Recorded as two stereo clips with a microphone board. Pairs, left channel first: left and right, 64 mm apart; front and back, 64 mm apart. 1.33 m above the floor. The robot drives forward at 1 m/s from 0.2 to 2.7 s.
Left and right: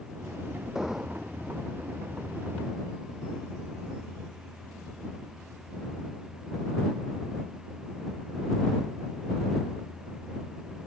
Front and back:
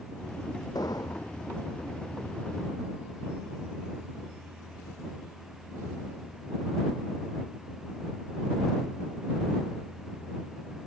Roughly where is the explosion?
Ahead.